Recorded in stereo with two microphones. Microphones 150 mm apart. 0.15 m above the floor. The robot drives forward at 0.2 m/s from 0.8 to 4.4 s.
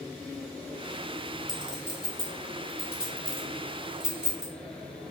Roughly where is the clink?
Centre.